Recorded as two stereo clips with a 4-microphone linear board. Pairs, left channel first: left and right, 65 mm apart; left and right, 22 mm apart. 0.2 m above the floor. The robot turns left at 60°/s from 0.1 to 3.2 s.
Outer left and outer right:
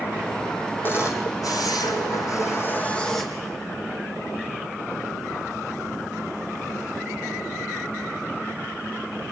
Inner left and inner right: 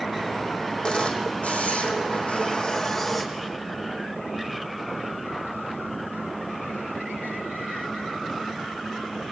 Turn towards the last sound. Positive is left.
turn(degrees=5)